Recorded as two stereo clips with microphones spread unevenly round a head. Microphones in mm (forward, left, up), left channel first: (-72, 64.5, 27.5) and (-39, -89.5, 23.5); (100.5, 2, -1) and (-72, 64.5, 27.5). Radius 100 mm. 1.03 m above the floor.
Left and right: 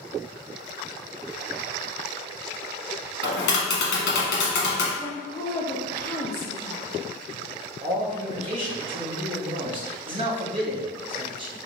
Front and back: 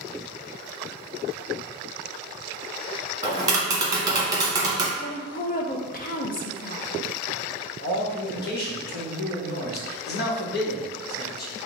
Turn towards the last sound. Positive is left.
turn(degrees=-25)